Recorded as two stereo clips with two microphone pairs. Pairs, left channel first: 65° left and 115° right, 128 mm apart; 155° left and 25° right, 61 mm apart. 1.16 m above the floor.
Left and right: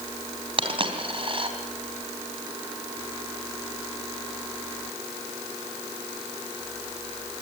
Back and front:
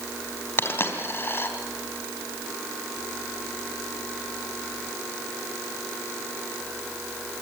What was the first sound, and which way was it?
A dropped coin, 155° right.